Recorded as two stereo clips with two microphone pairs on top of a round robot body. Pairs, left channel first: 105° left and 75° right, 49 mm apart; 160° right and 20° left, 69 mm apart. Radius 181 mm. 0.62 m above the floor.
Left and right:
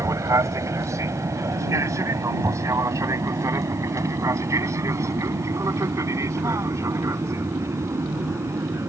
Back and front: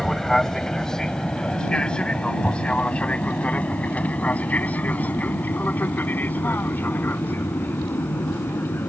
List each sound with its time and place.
0.0 s an aircraft: 75° right; by 8.9 s 100° right